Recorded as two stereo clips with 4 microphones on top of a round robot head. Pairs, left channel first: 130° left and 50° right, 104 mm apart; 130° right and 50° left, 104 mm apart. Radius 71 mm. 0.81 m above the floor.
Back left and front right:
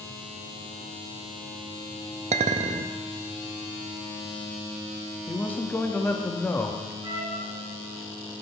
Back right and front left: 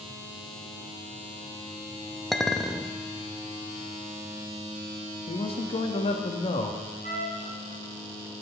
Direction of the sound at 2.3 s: 40° right.